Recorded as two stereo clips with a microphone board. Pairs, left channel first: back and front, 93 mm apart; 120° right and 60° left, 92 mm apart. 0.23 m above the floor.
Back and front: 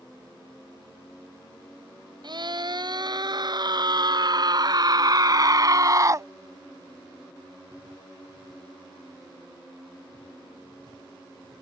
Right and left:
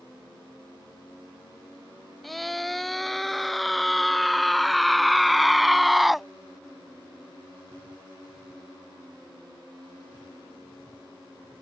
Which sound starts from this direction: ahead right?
A scream, at 2.2 s.